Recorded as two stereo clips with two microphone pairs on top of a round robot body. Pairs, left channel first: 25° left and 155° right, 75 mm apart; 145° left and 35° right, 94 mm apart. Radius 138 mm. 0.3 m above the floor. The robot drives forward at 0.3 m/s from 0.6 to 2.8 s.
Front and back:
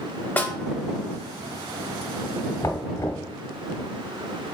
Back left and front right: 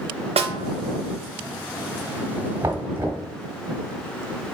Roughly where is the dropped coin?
I don't hear a dropped coin.